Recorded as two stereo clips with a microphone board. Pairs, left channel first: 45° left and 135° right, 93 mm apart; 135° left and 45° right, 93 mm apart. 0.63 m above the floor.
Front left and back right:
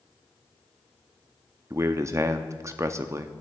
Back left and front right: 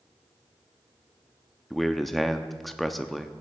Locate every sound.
1.7 s a man speaking: 135° right, 0.6 m